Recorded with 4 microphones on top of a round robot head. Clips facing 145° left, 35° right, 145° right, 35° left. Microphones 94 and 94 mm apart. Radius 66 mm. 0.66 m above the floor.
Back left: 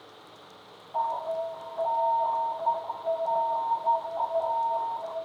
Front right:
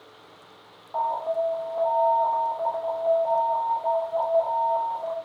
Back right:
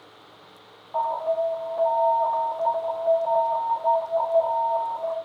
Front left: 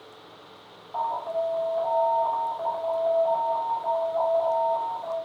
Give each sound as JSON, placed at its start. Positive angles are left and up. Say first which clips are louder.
{"t": 0.9, "sound": "an alarm", "louder": "front right 3 dB, back right 3 dB", "azimuth_deg": -75, "distance_m": 3.5}